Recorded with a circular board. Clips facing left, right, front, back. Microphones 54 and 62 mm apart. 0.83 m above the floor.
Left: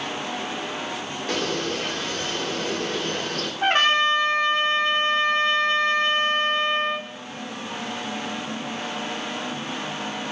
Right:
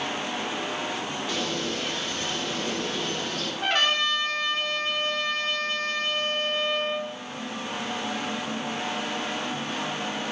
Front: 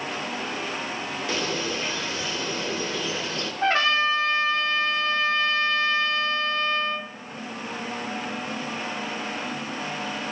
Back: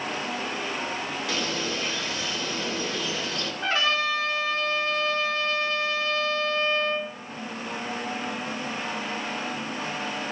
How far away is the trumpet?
About 1.7 m.